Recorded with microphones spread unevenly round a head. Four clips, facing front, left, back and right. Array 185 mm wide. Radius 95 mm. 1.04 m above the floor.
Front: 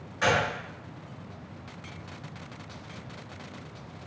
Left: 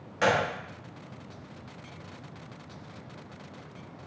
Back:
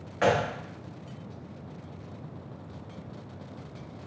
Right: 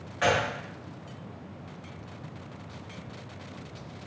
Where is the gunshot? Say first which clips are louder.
Left 1 dB, back 1 dB; 165° left, 0.6 m.